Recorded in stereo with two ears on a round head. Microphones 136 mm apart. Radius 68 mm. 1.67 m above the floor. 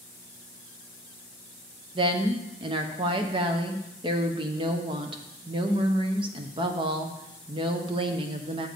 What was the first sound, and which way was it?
A woman speaking, 35° right (ahead or behind).